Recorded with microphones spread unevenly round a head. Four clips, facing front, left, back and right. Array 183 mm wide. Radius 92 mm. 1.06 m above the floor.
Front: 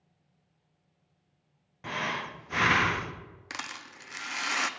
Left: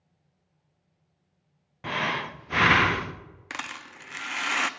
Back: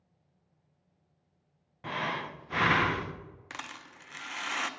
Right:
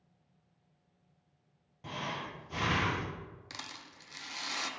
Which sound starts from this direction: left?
Breathing, at 1.8 s.